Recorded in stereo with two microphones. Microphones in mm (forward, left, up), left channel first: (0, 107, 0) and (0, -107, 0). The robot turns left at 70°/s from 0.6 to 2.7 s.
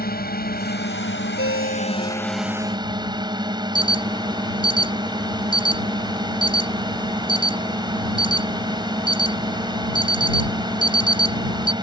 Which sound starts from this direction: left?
A ringtone, at 1.4 s.